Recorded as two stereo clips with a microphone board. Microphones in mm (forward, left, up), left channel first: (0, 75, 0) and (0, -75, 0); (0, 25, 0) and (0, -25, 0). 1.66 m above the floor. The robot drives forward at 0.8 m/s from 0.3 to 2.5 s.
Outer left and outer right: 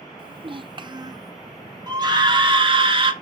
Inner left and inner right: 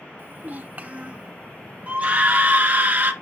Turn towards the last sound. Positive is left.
turn(degrees=-35)  # may be behind; listen again after turning